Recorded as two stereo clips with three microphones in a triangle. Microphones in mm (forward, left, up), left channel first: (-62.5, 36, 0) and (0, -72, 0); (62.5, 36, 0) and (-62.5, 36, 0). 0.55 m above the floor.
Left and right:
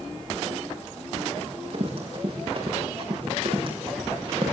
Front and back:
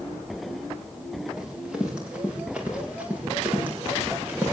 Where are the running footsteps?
95° right, 8.5 m; by 4.5 s 105° right, 8.5 m.